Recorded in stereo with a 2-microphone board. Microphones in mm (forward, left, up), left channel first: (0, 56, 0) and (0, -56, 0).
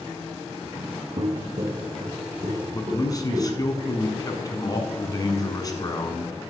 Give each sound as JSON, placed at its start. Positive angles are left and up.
{"t": 1.2, "sound": "footsteps", "side_deg": -45, "distance_m": 0.5}
{"t": 2.7, "sound": "a man speaking", "side_deg": 35, "distance_m": 1.2}